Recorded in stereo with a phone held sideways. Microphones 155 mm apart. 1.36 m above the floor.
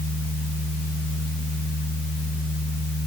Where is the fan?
75° right (ahead or behind), 3 m.